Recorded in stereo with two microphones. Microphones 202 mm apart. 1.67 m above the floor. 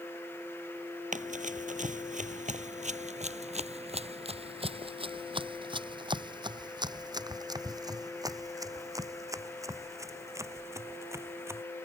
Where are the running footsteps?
40° right (ahead or behind); by 11.6 s 15° right (ahead or behind).